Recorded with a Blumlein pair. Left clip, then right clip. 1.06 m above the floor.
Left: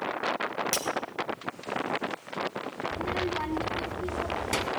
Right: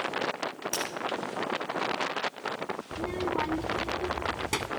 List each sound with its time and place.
0.7 s breaking glass: 50° left, 3 m
2.9 s a child speaking: straight ahead, 1.9 m